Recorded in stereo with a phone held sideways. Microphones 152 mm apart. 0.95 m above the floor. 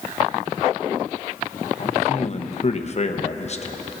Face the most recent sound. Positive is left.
turn(degrees=50)  # may be behind; listen again after turning